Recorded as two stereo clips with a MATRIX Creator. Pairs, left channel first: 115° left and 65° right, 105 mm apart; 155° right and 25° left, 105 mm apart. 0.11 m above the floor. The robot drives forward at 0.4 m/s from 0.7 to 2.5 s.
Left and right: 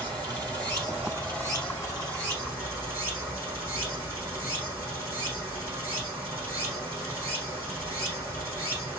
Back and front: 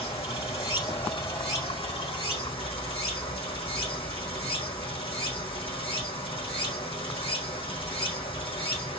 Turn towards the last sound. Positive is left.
turn(degrees=-135)